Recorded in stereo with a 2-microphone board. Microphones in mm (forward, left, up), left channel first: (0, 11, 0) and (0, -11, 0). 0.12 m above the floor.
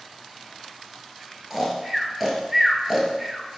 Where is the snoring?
10° right (ahead or behind), 1.1 m.